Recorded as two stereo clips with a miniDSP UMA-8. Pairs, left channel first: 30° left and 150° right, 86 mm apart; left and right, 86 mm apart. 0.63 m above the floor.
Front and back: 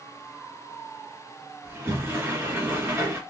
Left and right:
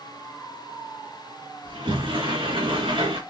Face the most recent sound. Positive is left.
turn(degrees=-90)